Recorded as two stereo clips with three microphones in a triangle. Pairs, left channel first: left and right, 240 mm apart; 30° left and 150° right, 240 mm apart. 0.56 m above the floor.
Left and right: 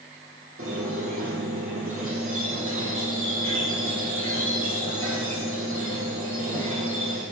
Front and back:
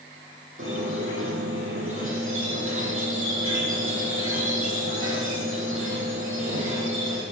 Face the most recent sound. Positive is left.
turn(degrees=-120)